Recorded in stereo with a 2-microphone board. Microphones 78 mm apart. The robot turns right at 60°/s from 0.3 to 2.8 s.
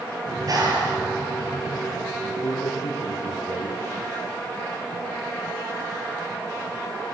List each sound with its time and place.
0.3 s a clap: 140° right, 6.5 m; by 1.8 s 50° right, 6.5 m
2.2 s a man speaking: 80° left, 5.5 m; by 4.0 s 115° left, 5.5 m